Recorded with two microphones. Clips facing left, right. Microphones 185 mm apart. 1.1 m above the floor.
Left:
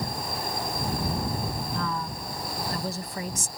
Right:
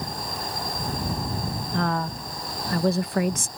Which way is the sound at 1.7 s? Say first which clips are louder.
Right 5 dB; 70° right (ahead or behind).